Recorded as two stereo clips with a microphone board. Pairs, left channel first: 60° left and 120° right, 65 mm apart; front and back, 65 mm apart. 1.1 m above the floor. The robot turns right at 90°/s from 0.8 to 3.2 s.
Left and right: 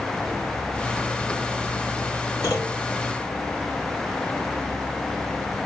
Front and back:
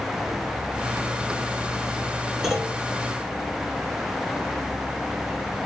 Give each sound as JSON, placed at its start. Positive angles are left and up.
{"t": 2.4, "sound": "a clunk", "azimuth_deg": 90, "distance_m": 5.5}